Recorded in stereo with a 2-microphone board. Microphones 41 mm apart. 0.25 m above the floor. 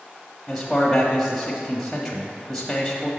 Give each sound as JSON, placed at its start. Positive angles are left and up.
{"t": 0.5, "sound": "a man speaking", "side_deg": 10, "distance_m": 1.0}